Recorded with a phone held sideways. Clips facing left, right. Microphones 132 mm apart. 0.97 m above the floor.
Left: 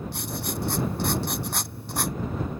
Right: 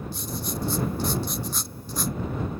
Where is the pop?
I don't hear a pop.